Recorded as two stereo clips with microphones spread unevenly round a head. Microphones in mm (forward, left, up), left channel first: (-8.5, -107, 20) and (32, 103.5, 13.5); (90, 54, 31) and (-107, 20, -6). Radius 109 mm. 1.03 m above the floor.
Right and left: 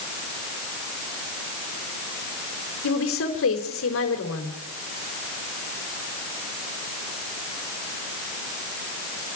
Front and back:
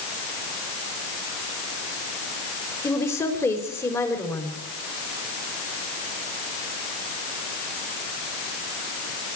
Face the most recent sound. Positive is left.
turn(degrees=-70)